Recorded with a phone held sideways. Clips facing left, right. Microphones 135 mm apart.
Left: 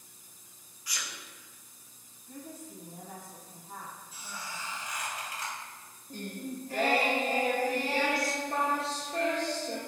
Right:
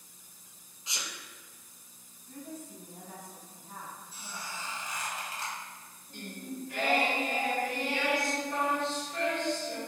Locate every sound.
0.9 s a sneeze: 25° right (ahead or behind), 0.5 m
2.3 s a woman speaking: 5° left (ahead or behind), 1.8 m
4.1 s a squeak: 30° right (ahead or behind), 1.5 m
6.1 s singing: 35° left (ahead or behind), 0.7 m